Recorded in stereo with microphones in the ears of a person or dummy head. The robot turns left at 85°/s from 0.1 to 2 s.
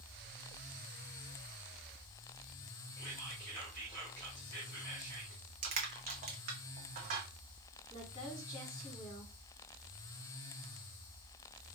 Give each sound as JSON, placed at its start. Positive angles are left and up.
{"t": 3.0, "sound": "whispering", "side_deg": 15, "distance_m": 1.7}
{"t": 5.6, "sound": "crushing", "side_deg": -40, "distance_m": 0.6}
{"t": 7.9, "sound": "a woman speaking", "side_deg": 25, "distance_m": 2.0}